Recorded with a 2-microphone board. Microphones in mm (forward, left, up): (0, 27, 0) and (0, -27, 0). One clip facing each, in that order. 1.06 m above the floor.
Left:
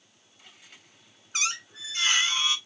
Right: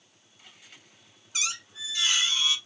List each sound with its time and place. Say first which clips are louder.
1.3 s a squeak: left 3 dB; 45° left (ahead or behind), 1.1 m